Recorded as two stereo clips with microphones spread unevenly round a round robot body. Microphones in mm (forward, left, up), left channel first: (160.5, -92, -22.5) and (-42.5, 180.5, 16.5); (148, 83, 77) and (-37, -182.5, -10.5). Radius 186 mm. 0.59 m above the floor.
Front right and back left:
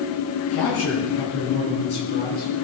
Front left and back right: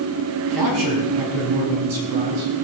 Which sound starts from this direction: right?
A man speaking, at 0.5 s.